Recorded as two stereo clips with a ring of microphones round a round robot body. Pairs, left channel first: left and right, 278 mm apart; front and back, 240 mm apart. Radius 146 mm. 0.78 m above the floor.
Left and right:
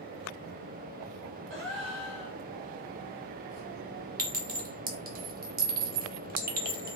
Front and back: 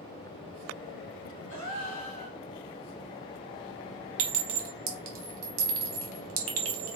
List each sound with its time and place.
1.5 s a gasp: 40° right, 1.6 m
4.2 s a clink: 150° right, 0.9 m